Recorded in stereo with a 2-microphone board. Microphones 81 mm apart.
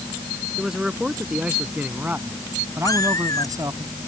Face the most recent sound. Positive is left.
turn(degrees=45)  # may be behind; listen again after turning